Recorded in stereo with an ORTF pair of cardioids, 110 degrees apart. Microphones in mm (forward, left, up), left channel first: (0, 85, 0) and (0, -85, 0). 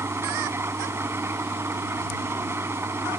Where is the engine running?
15° right.